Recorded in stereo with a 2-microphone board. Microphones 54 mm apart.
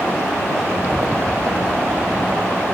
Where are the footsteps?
15° right (ahead or behind); by 2.6 s 70° right (ahead or behind).